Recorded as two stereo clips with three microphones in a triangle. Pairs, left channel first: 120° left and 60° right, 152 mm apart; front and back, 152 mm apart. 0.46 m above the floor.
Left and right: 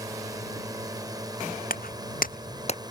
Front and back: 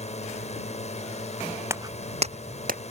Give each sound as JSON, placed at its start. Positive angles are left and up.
{"t": 0.0, "sound": "a drone", "azimuth_deg": 0}
{"t": 1.7, "sound": "footsteps", "azimuth_deg": 105}